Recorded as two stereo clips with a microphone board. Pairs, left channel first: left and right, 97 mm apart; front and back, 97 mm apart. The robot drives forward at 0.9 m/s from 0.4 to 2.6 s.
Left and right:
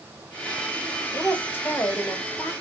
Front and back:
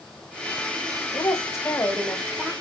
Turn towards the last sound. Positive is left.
turn(degrees=100)